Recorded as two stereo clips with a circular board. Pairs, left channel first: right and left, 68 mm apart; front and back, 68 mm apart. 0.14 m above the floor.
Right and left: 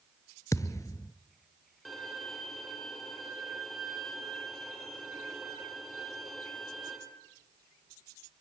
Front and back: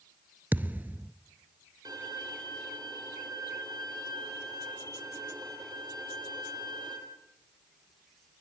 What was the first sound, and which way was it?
A thud, 120° right.